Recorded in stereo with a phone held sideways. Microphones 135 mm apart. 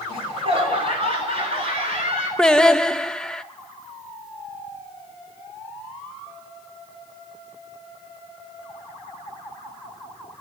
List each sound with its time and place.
0.1 s laughter: 45° right (ahead or behind), 4.5 m; by 2.3 s 50° right (ahead or behind), 7 m
2.4 s singing: 5° left (ahead or behind), 0.6 m